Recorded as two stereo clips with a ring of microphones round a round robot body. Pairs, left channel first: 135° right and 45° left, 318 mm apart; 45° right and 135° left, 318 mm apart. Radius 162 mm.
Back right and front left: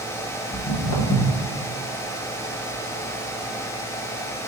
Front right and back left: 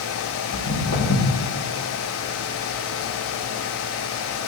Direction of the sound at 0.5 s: 105° right.